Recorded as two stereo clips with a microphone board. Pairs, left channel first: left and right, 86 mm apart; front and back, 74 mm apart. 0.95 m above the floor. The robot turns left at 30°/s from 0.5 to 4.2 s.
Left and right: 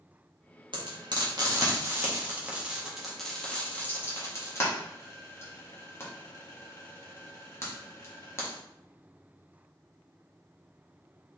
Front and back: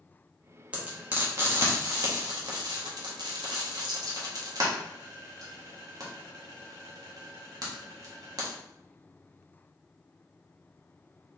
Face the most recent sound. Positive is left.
turn(degrees=150)